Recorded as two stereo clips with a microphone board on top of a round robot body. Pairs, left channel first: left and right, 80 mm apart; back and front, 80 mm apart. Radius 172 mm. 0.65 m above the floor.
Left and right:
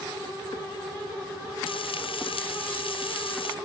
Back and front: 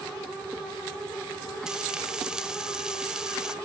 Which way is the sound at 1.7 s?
80° left.